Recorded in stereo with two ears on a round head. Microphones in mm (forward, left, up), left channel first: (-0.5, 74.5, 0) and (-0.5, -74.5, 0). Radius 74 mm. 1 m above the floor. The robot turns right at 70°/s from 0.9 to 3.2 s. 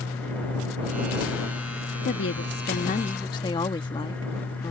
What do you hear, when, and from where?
2.0 s a woman speaking: 70° left; by 4.7 s 150° left